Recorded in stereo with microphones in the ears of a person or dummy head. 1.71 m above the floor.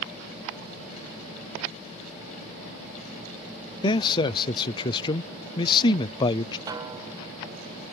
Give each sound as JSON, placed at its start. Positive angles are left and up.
{"t": 3.8, "sound": "a man speaking", "side_deg": 30}
{"t": 6.7, "sound": "a snare drum", "side_deg": -20}